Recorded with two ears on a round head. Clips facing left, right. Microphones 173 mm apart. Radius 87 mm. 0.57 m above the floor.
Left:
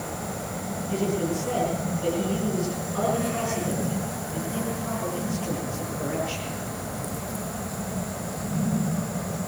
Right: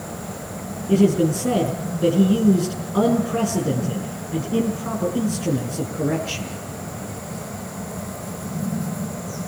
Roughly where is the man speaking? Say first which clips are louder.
Right 10 dB; right.